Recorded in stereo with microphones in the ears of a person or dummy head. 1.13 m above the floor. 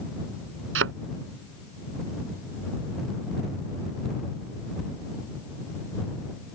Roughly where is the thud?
Right.